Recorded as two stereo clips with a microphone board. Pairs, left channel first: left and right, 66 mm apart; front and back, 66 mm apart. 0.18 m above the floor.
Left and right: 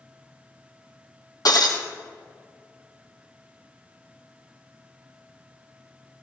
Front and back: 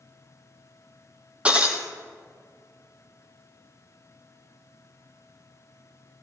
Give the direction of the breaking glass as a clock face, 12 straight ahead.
8 o'clock.